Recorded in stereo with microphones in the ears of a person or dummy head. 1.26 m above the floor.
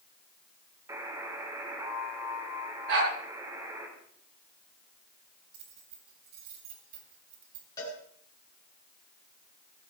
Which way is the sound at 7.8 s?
20° left (ahead or behind).